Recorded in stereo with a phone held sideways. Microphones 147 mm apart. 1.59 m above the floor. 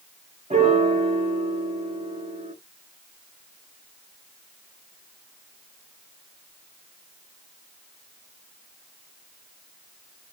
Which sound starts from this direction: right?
A piano, at 0.5 s.